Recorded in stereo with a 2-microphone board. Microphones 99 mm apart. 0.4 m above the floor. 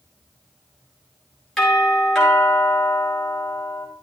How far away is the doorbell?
About 6.5 m.